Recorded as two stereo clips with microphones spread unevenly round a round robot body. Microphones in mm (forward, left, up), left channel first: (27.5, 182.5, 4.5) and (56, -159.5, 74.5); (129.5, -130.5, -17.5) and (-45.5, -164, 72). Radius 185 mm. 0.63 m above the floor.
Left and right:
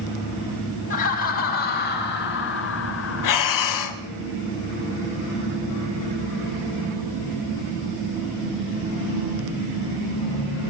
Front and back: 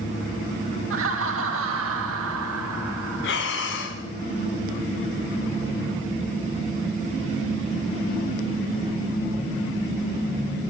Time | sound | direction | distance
0.9 | laughter | 160° left | 3 m
3.2 | breathing | 60° left | 1.7 m